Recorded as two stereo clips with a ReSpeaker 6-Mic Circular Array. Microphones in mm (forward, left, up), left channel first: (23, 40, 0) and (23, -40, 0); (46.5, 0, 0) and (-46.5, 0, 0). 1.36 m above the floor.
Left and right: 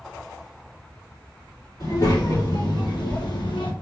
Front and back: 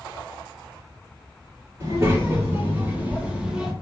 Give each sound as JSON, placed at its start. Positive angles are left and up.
{"t": 1.8, "sound": "a child speaking", "azimuth_deg": 120, "distance_m": 1.9}